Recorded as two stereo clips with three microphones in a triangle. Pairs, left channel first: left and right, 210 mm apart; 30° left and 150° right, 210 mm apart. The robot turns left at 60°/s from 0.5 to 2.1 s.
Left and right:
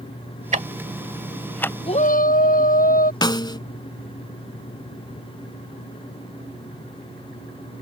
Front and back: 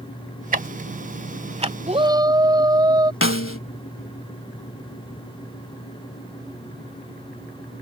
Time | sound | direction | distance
0.5 | ticking | 125° right | ?
1.9 | a shout | 155° left | ?
3.2 | a snare drum | 20° left | ?